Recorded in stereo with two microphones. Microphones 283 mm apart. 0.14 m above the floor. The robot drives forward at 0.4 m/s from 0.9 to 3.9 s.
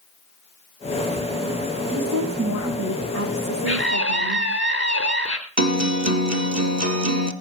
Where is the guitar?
65° right (ahead or behind), 1.8 m.